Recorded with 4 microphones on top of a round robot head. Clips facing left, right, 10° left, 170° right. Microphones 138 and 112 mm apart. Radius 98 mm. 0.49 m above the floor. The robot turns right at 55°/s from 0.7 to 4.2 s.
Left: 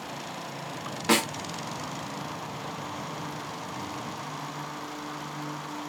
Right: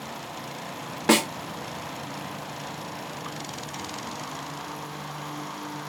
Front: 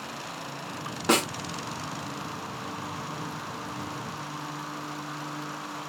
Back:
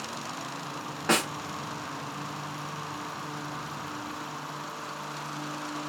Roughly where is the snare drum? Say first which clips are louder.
Right 4 dB, front 2 dB; ahead right.